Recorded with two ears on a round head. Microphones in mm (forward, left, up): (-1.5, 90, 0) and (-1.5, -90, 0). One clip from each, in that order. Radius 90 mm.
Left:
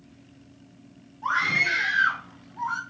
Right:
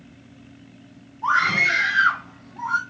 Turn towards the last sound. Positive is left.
turn(degrees=-5)  # may be behind; listen again after turning